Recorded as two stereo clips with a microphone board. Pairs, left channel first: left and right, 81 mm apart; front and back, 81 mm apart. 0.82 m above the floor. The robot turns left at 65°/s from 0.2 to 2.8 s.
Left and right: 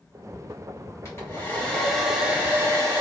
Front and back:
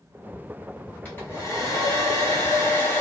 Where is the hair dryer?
55° left, 1.3 m; by 3.0 s 55° right, 1.3 m.